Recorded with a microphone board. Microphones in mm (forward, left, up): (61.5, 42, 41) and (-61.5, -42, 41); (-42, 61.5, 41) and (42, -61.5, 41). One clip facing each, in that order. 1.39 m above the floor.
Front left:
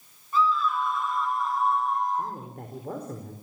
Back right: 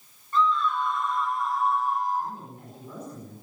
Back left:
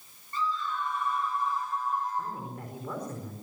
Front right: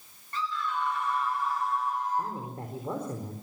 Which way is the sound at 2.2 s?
5° left.